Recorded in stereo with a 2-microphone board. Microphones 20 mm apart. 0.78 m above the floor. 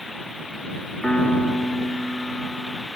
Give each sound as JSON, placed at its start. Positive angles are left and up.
{"t": 1.0, "sound": "a piano", "side_deg": 70}